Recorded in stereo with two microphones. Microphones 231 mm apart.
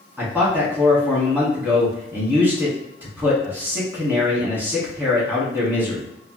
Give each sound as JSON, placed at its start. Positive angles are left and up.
{"t": 0.2, "sound": "a man speaking", "side_deg": -10, "distance_m": 1.3}